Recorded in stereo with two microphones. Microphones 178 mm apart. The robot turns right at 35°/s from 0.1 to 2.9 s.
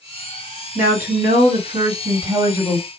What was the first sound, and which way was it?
A woman speaking, 85° right.